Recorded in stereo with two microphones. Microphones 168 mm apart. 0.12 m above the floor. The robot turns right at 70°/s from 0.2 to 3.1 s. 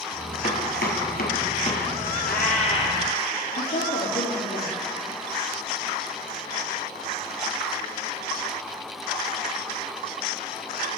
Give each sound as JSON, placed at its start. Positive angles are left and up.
{"t": 0.4, "sound": "chopping", "side_deg": 45, "distance_m": 1.8}
{"t": 2.2, "sound": "a cat meowing", "azimuth_deg": 105, "distance_m": 2.0}
{"t": 3.6, "sound": "a woman speaking", "side_deg": 65, "distance_m": 4.0}